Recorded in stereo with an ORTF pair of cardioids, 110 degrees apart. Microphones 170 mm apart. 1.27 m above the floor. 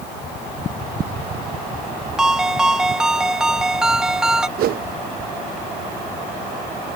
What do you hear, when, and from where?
2.2 s a ringtone: 5° right
4.6 s a whoosh: 65° right